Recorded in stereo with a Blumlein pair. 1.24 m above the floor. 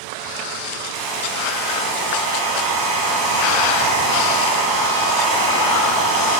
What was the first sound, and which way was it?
A hair dryer, 40° right.